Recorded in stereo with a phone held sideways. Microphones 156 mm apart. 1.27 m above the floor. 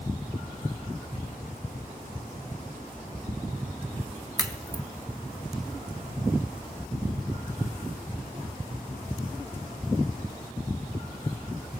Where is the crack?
20° right (ahead or behind), 1.5 m.